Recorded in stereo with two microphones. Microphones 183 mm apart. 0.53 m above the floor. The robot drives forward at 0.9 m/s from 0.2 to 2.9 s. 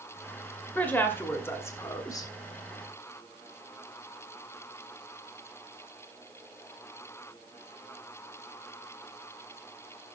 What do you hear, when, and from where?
0.8 s a woman speaking: 10° left (ahead or behind), 2 m; by 2.3 s 20° left (ahead or behind), 1.0 m